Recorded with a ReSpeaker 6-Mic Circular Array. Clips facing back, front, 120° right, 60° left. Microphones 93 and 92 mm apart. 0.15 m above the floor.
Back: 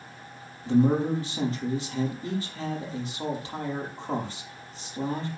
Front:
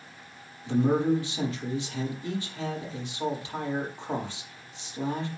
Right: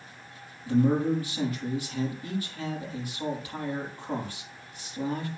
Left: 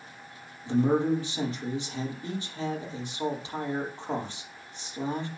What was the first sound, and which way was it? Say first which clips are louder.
A man speaking: back 1 dB, even; 125° left.